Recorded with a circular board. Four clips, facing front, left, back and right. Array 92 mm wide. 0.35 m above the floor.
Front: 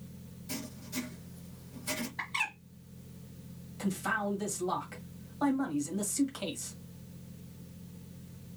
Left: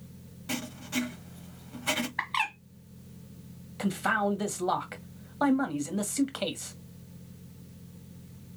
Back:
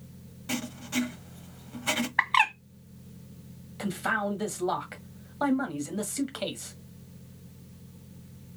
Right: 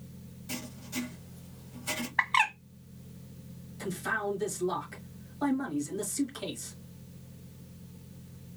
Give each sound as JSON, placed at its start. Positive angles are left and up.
{"t": 0.5, "sound": "writing", "azimuth_deg": 145, "distance_m": 0.9}
{"t": 2.2, "sound": "a bird", "azimuth_deg": -160, "distance_m": 1.2}
{"t": 3.8, "sound": "a man speaking", "azimuth_deg": 120, "distance_m": 1.7}